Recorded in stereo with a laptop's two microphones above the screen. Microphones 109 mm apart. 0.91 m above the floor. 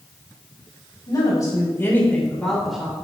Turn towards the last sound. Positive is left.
turn(degrees=-10)  # may be behind; listen again after turning